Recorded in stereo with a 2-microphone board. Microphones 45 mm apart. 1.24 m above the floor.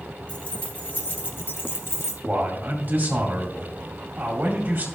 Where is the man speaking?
45° right (ahead or behind), 2.0 m.